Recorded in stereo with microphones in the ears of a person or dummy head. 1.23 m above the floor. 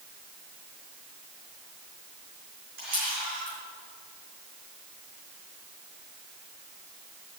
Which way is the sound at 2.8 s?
50° right (ahead or behind).